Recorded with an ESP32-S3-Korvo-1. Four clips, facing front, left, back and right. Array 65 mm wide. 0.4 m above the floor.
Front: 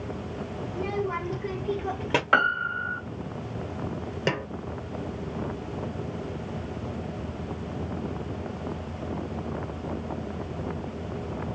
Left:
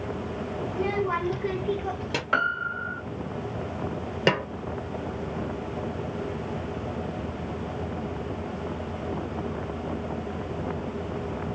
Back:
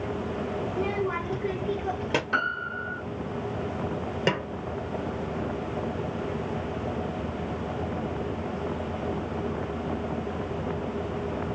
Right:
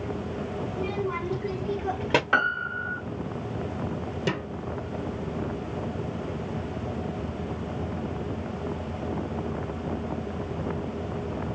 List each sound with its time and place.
0.7 s a child speaking: 105° left, 1.7 m; by 2.2 s 75° right, 0.8 m
2.3 s a piano: straight ahead, 1.1 m
4.3 s a snare drum: 95° left, 0.6 m